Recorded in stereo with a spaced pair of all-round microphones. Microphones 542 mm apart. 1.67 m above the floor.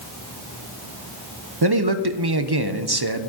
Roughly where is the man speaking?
Right.